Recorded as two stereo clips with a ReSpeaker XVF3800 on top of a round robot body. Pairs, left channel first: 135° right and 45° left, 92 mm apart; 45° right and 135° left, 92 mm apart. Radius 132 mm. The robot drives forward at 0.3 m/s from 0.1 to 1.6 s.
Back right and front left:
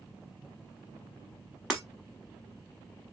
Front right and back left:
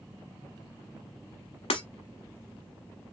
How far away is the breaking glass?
About 0.8 m.